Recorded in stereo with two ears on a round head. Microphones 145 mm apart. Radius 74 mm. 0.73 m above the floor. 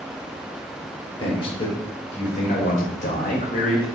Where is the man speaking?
30° left (ahead or behind), 2 m; by 3.9 s 55° left (ahead or behind), 3.5 m.